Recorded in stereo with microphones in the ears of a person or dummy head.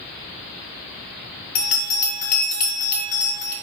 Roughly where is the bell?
Left.